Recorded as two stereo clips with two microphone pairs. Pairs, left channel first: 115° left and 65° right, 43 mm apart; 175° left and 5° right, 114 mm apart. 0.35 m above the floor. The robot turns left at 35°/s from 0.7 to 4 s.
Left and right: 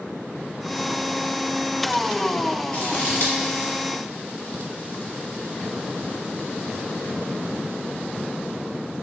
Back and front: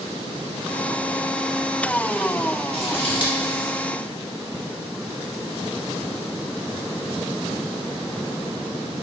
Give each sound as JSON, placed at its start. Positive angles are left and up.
{"t": 2.7, "sound": "scissors", "azimuth_deg": 160, "distance_m": 0.7}